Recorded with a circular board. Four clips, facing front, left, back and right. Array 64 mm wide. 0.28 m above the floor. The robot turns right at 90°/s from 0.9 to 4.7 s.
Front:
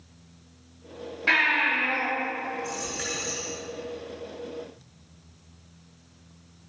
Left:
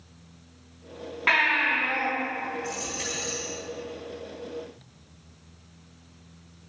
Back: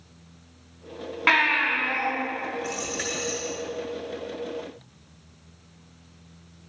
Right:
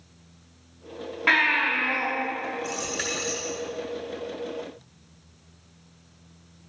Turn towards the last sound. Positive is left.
turn(degrees=55)